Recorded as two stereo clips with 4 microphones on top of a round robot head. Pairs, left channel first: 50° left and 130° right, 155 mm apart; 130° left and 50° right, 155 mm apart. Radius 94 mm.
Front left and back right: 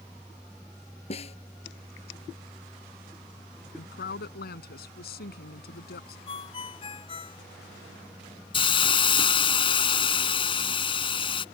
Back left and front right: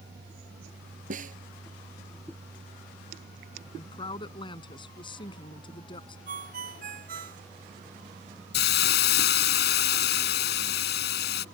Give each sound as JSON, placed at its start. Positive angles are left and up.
{"t": 1.1, "sound": "a snare drum", "azimuth_deg": -5}
{"t": 3.7, "sound": "a woman speaking", "azimuth_deg": 70}
{"t": 6.3, "sound": "a ringtone", "azimuth_deg": -10}
{"t": 8.5, "sound": "a hiss", "azimuth_deg": 105}